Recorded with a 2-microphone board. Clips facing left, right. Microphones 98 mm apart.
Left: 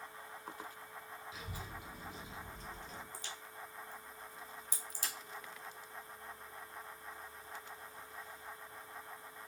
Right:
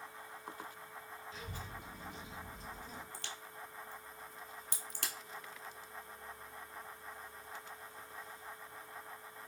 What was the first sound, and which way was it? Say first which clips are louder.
A child speaking: right 1 dB; 10° left (ahead or behind).